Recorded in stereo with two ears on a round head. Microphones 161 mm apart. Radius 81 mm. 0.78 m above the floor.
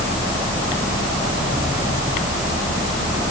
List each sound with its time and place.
Only background noise.